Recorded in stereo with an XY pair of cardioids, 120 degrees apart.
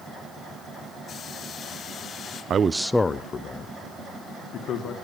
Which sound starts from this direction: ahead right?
A man speaking, at 2.5 s.